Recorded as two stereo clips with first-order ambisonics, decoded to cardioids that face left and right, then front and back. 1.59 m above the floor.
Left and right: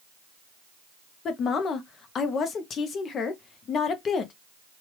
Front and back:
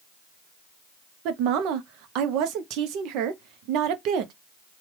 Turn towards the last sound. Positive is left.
turn(degrees=150)